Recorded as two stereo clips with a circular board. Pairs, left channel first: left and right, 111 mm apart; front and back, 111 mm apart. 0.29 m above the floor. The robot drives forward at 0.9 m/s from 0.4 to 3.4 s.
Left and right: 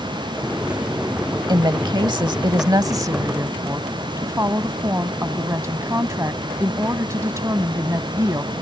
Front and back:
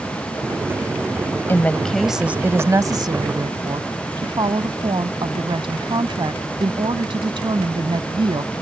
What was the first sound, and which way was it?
A woman speaking, 60° right.